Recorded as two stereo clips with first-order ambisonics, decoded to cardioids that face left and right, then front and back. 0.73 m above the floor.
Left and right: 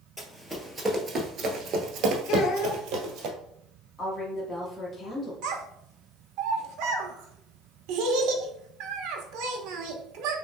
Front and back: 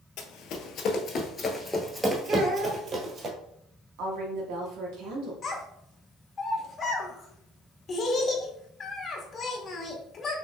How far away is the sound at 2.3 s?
About 1.0 m.